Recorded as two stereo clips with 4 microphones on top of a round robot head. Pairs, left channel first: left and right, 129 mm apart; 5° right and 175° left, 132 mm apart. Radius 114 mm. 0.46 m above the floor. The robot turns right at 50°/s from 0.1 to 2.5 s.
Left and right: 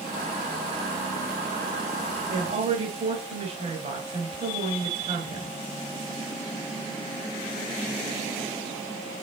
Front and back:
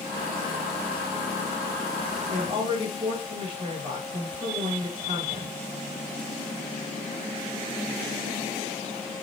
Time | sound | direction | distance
2.3 | a woman speaking | 135° right | 4 m